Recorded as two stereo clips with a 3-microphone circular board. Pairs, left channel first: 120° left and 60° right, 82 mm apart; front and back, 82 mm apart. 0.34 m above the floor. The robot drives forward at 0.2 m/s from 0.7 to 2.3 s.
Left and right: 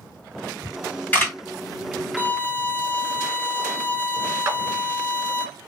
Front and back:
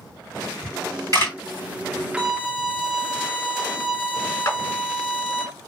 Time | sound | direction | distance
0.6 | a camera shutter | straight behind | 1.8 m
2.2 | a violin | 110° left | 0.7 m
4.5 | a clap | 30° right | 1.3 m